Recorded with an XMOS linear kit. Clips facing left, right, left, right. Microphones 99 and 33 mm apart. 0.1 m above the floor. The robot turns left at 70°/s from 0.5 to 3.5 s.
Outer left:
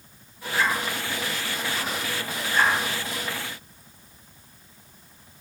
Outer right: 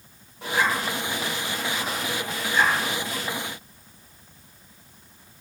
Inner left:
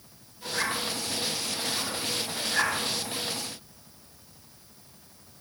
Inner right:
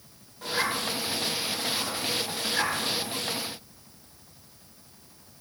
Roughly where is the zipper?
Right.